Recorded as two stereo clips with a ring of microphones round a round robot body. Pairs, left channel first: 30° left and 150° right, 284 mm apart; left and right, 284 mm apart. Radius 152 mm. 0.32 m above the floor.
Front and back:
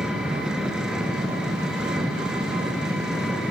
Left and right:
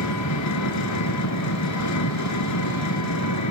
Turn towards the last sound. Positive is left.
turn(degrees=120)